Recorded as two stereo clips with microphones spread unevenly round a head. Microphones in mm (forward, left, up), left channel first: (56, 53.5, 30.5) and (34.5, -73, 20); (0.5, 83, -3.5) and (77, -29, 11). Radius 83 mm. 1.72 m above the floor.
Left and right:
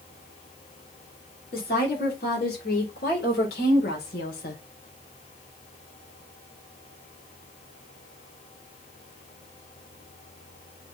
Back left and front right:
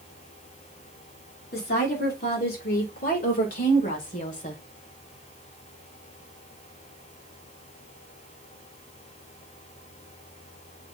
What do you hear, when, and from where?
1.5 s a woman speaking: 115° left, 4.5 m; by 4.6 s 90° left, 2.5 m